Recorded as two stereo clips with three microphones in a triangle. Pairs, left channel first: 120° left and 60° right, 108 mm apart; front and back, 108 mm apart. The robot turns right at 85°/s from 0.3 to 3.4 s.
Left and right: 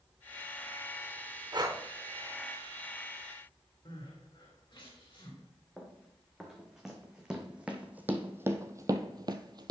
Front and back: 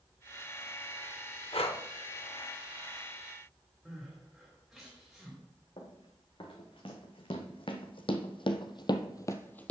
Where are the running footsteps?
30° left, 2.5 m; by 9.7 s 75° right, 0.7 m.